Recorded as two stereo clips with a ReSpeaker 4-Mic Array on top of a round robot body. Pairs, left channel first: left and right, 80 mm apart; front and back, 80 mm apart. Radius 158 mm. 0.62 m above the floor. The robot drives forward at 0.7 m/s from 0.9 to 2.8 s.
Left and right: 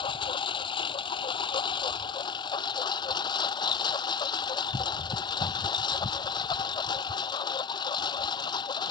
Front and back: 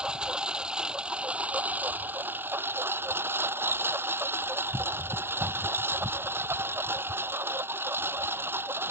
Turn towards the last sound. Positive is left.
turn(degrees=115)